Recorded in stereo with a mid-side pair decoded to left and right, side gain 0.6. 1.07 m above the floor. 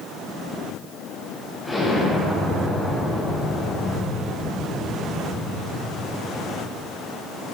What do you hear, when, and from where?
1.6 s an explosion: straight ahead, 6 m